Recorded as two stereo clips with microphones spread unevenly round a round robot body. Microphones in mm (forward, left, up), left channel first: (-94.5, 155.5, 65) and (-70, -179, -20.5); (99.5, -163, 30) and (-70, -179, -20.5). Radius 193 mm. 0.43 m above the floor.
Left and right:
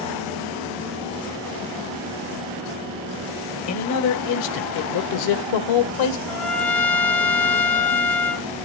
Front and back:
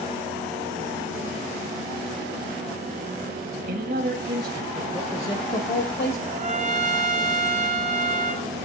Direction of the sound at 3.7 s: 145° left.